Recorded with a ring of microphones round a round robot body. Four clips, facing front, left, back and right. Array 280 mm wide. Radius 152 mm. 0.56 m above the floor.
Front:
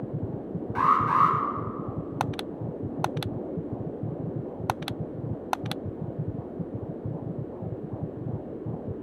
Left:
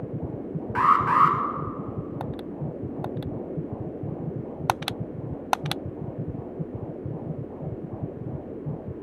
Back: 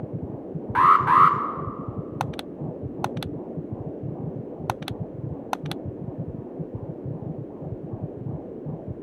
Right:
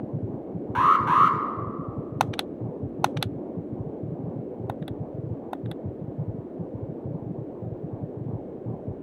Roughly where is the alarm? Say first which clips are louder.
Even, back 6 dB; behind.